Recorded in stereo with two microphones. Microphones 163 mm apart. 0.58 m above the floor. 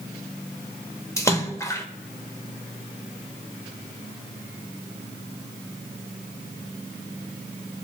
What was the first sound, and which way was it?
A splash, 20° left (ahead or behind).